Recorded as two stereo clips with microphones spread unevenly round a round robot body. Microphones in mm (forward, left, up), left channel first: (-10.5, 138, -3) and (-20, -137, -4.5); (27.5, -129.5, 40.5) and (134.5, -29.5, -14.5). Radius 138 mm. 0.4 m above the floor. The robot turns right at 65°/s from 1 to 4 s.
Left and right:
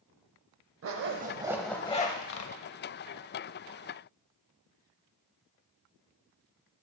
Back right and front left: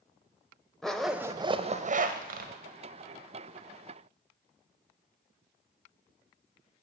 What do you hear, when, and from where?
0.8 s a zipper: 45° right, 0.6 m; by 2.5 s 55° left, 0.6 m